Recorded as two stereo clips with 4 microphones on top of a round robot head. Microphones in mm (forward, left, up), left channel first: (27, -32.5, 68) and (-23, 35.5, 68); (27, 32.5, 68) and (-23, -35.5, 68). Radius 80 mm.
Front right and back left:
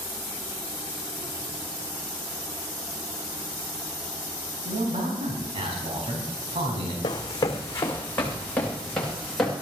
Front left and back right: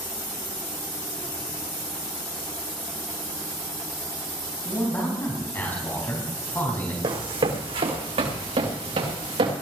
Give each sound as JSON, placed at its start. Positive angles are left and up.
{"t": 4.7, "sound": "a man speaking", "azimuth_deg": 120, "distance_m": 4.0}
{"t": 7.0, "sound": "running footsteps", "azimuth_deg": -100, "distance_m": 2.0}